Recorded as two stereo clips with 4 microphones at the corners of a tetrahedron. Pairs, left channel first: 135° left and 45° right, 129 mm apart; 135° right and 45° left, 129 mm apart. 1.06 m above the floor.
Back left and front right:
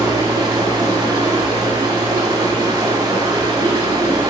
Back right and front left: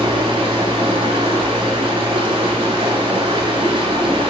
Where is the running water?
10° left, 1.7 m.